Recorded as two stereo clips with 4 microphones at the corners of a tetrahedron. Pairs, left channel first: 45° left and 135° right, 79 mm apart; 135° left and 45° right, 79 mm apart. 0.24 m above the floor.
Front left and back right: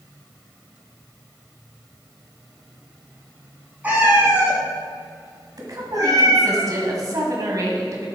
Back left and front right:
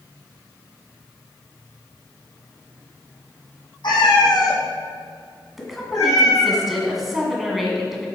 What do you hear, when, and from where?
3.8 s a cat meowing: 155° left, 1.9 m; by 6.6 s 175° right, 3 m
5.6 s a woman speaking: 130° right, 1.7 m